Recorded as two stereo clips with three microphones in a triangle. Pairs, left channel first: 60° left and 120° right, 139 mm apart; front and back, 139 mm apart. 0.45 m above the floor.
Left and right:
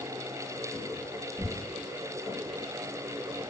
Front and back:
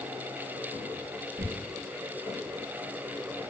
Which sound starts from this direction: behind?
Tearing paper, at 1.4 s.